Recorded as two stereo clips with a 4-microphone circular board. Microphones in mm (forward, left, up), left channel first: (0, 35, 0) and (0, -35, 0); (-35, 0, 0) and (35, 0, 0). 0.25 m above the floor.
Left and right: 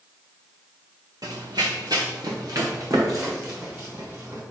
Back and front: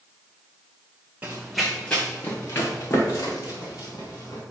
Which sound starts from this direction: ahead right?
Running footsteps, at 1.2 s.